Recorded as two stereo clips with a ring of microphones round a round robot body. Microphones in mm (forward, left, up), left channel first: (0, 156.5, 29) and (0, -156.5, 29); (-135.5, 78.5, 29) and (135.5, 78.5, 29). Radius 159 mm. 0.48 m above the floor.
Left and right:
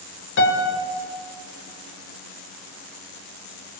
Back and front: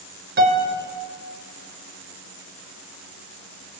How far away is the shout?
I don't hear a shout.